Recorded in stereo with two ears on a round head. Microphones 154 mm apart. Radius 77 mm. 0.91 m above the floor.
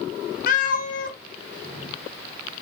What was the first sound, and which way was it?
A cat meowing, 50° left (ahead or behind).